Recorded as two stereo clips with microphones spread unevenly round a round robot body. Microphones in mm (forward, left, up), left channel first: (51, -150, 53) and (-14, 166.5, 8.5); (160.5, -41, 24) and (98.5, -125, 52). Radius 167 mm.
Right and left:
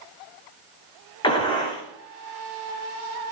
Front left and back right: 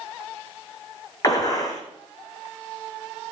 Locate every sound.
1.2 s a gunshot: straight ahead, 3.5 m